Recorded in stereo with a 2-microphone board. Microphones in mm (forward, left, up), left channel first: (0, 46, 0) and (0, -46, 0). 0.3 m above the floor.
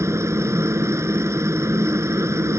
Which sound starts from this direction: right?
A helicopter, at 0.0 s.